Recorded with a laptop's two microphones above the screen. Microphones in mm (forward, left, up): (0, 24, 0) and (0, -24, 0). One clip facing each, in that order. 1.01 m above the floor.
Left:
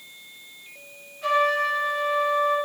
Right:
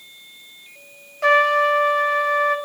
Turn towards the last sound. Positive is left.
turn(degrees=-80)